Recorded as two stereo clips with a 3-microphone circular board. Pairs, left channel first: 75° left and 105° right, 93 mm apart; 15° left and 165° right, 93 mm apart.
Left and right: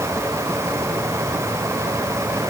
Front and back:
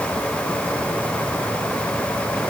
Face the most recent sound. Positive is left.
No sound to turn to.